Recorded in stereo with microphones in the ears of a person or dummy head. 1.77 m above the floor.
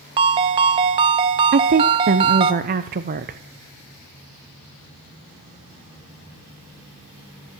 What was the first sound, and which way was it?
A ringtone, 25° right (ahead or behind).